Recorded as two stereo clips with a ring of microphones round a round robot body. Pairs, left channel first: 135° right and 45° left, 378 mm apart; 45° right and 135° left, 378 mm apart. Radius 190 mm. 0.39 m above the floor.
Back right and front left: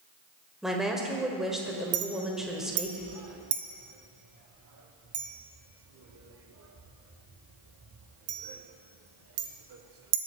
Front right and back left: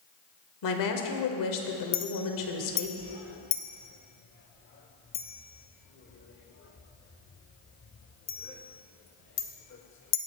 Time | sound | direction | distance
0.6 | a woman speaking | 45° right | 1.3 m
1.9 | a clink | 5° left | 0.9 m